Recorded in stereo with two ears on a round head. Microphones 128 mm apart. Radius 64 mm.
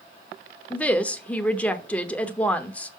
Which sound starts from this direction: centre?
A woman speaking, at 0.7 s.